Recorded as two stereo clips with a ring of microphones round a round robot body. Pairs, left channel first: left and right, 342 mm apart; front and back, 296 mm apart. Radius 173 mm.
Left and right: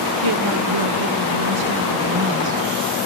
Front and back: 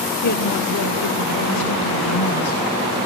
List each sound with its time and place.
0.2 s a woman speaking: 65° right, 1.9 m; by 2.6 s 35° right, 4.5 m